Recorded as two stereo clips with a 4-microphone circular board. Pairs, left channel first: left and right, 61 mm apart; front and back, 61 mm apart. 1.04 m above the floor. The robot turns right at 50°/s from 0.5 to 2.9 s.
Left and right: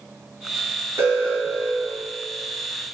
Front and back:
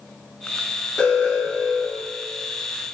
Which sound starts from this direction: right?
An alarm, at 1.0 s.